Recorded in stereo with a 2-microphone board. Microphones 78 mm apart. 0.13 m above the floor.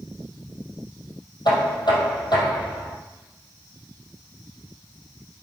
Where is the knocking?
70° left (ahead or behind), 3 m.